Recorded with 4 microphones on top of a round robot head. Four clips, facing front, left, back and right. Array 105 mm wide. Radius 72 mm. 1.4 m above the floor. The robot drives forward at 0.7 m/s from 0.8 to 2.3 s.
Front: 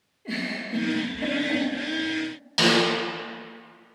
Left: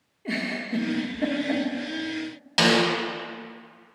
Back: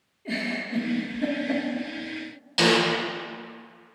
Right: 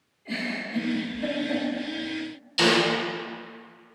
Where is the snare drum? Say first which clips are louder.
Left 1 dB, even; 85° left, 1.9 m.